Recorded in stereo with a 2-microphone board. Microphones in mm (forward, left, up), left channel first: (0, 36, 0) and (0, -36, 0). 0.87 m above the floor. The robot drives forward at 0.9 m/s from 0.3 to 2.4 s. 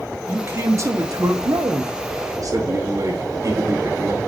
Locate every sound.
0.3 s a man speaking: 35° right (ahead or behind), 1.7 m; by 4.2 s 55° right (ahead or behind), 1.3 m